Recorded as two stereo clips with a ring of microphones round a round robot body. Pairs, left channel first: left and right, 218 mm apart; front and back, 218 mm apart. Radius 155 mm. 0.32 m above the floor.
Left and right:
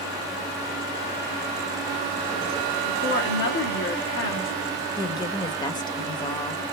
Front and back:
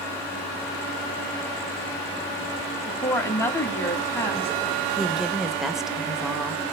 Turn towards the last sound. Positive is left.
turn(degrees=95)